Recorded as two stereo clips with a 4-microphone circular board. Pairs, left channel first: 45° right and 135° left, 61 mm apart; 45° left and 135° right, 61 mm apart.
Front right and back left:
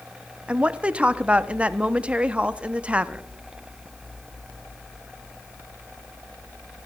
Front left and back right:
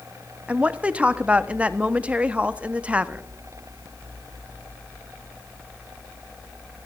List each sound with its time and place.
0.5 s a woman speaking: 175° right, 0.5 m